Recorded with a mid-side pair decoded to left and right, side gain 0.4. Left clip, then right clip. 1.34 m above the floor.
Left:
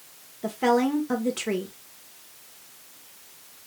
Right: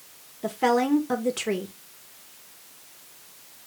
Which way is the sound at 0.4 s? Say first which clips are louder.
Even; 10° right.